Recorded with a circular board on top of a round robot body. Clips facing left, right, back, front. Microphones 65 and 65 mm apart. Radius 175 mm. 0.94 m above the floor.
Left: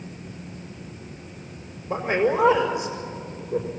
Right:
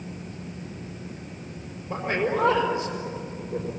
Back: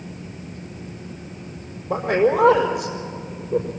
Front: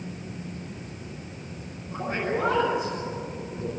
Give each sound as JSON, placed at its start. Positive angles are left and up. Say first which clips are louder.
{"t": 1.9, "sound": "a man speaking", "louder": "left 4 dB, back 10 dB", "azimuth_deg": 165, "distance_m": 4.5}